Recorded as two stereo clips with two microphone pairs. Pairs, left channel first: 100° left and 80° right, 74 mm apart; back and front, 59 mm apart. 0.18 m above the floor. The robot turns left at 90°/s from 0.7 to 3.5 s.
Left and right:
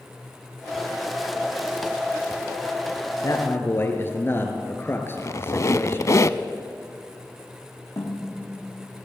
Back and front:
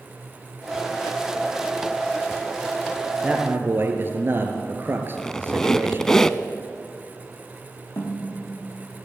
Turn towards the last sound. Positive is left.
turn(degrees=140)